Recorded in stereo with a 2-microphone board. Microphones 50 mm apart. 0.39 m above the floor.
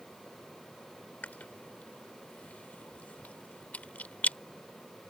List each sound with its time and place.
1.2 s chewing: 35° left (ahead or behind)